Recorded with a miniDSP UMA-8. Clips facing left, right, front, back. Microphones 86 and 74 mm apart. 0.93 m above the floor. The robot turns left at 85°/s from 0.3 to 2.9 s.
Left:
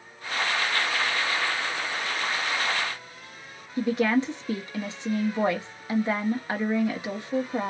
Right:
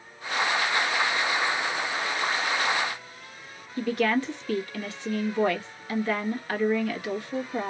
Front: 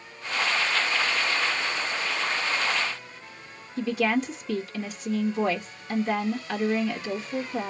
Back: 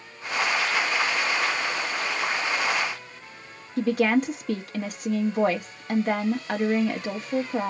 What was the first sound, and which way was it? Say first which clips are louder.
A woman speaking: left 2 dB, back 3 dB; 155° left.